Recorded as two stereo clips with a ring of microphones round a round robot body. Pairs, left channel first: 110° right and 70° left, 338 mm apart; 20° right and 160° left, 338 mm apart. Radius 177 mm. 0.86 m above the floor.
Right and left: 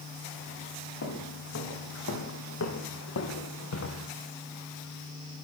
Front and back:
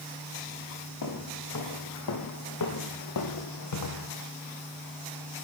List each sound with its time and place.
1.0 s footsteps: 60° right, 5.5 m